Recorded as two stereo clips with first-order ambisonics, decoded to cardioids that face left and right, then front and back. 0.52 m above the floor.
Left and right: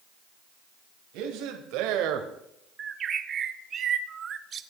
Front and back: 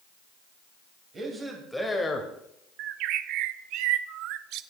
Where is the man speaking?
110° right, 2 m; by 2.3 s 60° right, 1.8 m.